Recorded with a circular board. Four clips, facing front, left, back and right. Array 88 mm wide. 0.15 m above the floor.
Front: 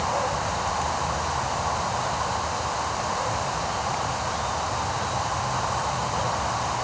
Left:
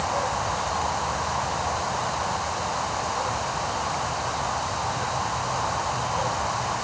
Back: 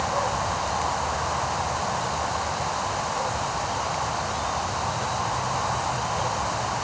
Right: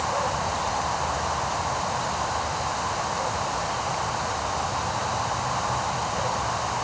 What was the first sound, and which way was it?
Only background noise.